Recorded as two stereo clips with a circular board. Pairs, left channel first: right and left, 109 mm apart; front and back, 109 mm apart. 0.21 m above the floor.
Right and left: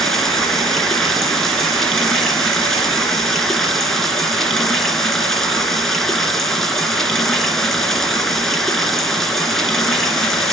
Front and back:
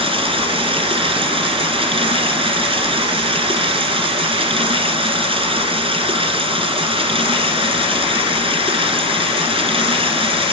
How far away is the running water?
About 1.9 m.